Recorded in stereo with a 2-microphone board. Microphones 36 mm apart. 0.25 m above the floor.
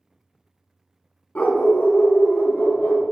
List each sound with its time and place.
1.4 s a dog barking: 45° left (ahead or behind), 0.6 m; by 3.0 s 75° left (ahead or behind), 1.5 m